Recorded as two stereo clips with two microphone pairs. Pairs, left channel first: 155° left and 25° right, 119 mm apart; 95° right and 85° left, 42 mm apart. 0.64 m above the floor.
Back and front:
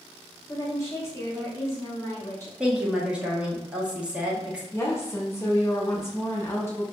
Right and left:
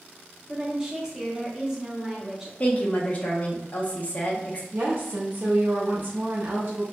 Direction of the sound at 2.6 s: 95° right.